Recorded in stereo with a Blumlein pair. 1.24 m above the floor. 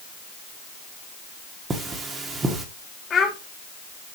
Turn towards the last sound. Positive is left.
turn(degrees=20)